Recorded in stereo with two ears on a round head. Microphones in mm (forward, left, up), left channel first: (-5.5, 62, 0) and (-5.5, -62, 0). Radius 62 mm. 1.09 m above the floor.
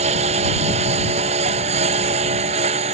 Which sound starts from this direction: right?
A lawn mower, at 0.0 s.